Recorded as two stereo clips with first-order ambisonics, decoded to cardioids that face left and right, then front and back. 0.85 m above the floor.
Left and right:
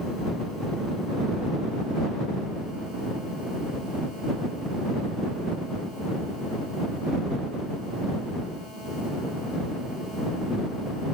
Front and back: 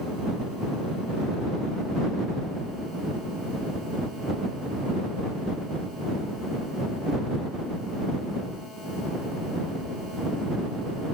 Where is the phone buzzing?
No phone buzzing in this recording.